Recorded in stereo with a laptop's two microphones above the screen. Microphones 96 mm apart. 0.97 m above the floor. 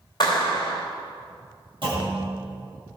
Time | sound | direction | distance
0.2 | a clap | 45° left (ahead or behind) | 3 m
1.8 | a clunk | 60° right (ahead or behind) | 6.5 m